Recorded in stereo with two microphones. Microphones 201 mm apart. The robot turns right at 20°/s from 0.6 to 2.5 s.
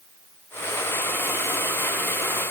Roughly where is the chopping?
No chopping in this recording.